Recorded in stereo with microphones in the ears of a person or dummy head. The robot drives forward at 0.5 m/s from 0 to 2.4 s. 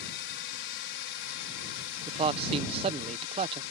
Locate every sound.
0.0 s a drone: 65° left (ahead or behind); by 3.7 s 70° left (ahead or behind)
2.1 s a man speaking: 25° right (ahead or behind)